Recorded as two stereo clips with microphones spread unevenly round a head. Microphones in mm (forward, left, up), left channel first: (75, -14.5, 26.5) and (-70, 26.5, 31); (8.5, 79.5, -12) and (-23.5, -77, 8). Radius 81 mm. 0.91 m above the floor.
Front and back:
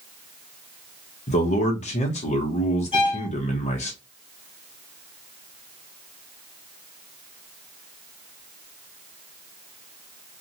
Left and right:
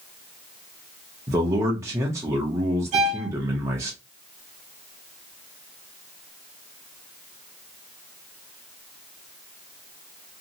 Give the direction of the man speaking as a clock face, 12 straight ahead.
1 o'clock.